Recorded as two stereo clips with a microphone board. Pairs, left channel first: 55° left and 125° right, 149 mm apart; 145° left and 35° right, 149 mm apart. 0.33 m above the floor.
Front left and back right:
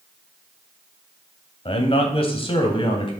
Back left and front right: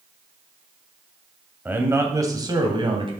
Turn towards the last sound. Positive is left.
turn(degrees=10)